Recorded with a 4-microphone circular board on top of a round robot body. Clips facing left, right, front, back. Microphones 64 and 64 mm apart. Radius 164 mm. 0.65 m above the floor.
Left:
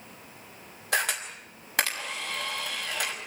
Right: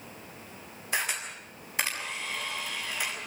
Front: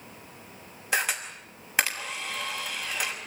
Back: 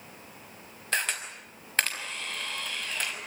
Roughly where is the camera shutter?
Left.